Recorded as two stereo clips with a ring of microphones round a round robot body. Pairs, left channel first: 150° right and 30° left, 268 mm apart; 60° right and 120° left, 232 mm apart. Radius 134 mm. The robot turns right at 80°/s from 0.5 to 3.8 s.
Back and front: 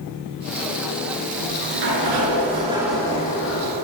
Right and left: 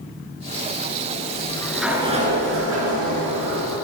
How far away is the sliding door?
About 9 m.